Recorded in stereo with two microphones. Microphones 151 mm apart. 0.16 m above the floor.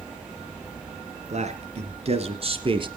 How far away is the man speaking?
About 2.5 m.